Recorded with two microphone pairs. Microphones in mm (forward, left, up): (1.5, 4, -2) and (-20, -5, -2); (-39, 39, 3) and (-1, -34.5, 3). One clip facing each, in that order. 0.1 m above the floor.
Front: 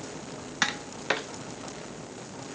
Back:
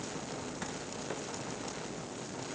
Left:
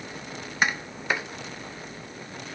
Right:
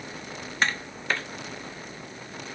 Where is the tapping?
40° left.